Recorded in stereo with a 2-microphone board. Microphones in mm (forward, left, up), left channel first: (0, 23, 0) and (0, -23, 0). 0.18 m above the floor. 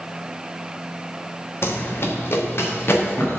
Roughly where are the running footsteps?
Left.